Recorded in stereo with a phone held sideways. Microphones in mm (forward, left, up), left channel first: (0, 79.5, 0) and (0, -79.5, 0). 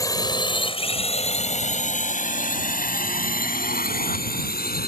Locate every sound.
0.0 s a drone: 20° left (ahead or behind); by 4.9 s 70° left (ahead or behind)